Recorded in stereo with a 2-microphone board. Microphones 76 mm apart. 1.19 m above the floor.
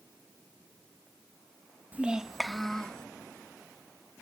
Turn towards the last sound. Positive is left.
turn(degrees=15)  # may be behind; listen again after turning